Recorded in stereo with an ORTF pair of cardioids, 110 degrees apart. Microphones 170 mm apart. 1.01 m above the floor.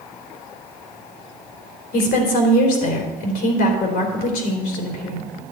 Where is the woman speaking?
70° left, 3.5 m.